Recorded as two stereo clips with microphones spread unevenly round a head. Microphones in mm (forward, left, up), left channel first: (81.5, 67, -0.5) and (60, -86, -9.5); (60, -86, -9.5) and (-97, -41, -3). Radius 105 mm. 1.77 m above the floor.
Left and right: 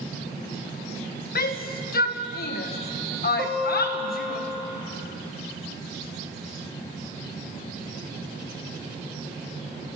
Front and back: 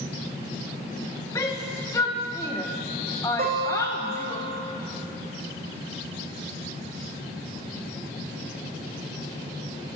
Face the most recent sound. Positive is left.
turn(degrees=-165)